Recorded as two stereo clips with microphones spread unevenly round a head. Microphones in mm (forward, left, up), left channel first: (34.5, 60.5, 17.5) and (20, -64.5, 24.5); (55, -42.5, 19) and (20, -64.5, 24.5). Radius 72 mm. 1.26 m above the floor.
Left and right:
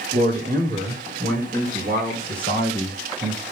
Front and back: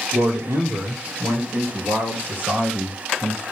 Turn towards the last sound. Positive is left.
turn(degrees=-125)